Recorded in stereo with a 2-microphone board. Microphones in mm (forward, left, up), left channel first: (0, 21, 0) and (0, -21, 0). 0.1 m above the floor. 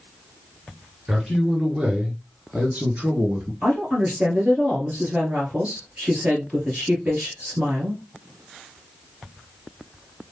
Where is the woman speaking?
40° right (ahead or behind), 1.9 m.